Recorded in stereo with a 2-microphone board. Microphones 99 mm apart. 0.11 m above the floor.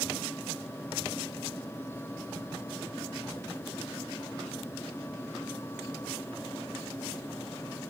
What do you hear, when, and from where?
Only background noise.